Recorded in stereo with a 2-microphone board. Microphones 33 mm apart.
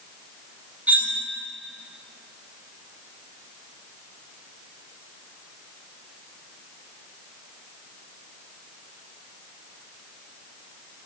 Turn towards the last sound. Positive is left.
turn(degrees=-55)  # may be behind; listen again after turning